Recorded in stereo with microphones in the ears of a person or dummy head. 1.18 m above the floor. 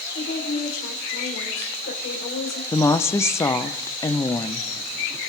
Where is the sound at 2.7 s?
15° left (ahead or behind), 0.8 m.